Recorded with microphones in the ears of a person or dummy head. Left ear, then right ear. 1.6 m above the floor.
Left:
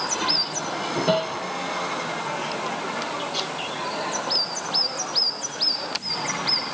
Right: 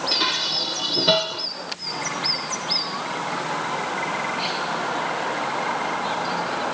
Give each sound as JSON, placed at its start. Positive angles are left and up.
{"t": 0.1, "sound": "dishes clattering", "side_deg": -70}